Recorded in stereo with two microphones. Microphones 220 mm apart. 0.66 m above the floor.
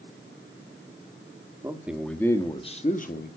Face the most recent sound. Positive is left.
turn(degrees=45)  # may be behind; listen again after turning